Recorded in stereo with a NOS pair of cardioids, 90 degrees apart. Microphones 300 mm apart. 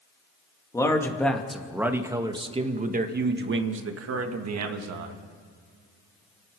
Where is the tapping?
No tapping in this recording.